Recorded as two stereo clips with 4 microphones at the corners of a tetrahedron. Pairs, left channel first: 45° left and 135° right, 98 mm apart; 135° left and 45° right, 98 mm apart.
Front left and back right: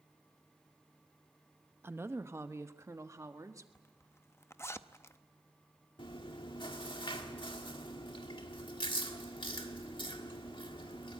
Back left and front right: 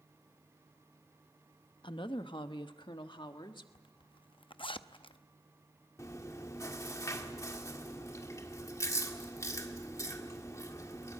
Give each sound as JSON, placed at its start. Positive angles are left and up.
{"t": 1.8, "sound": "a woman speaking", "azimuth_deg": 160, "distance_m": 0.9}
{"t": 3.8, "sound": "a zipper", "azimuth_deg": 105, "distance_m": 0.6}
{"t": 6.0, "sound": "chewing", "azimuth_deg": 80, "distance_m": 1.6}